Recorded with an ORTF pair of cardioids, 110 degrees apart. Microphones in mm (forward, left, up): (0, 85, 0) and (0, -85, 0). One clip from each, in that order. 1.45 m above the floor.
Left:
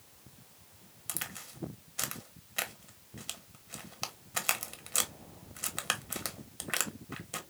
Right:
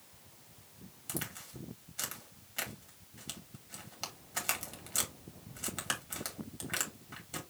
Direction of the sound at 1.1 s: 30° left.